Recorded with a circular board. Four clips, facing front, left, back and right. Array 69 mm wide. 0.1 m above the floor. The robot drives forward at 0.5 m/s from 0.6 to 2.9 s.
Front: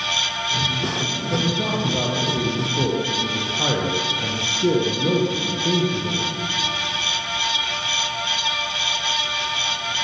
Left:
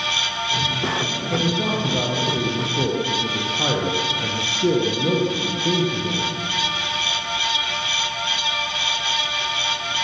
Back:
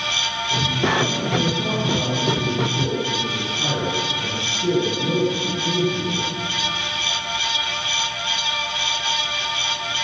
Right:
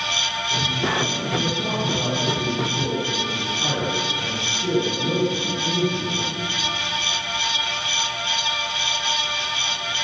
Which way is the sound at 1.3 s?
45° left.